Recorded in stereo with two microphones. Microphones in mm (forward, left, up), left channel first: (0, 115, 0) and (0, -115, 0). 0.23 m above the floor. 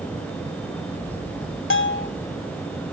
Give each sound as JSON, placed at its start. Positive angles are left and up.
{"t": 1.7, "sound": "a bell", "side_deg": 60, "distance_m": 0.8}